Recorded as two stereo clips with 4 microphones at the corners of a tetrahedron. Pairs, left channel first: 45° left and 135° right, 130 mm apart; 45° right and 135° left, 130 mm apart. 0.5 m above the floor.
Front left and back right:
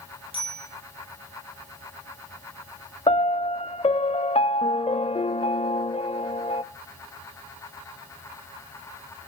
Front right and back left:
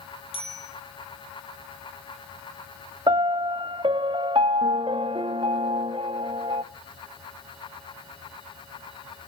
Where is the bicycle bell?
90° right, 10 m.